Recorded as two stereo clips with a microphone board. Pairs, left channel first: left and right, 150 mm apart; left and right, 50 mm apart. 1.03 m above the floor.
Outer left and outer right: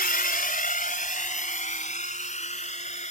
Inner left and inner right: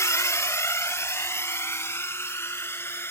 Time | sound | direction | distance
0.0 | a drone | 75° left (ahead or behind) | ?